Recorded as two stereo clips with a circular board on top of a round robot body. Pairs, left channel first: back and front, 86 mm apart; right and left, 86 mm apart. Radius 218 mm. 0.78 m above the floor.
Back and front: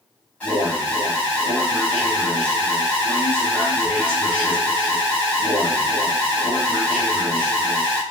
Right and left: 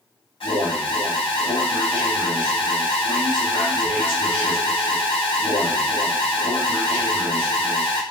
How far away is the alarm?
About 1.1 m.